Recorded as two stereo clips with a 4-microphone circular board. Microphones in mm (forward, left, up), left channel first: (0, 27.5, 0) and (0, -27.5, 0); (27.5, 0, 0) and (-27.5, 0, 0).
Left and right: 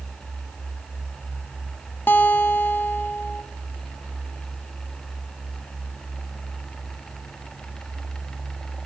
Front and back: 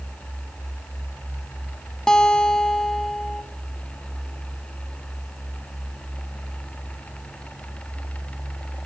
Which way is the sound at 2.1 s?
70° left.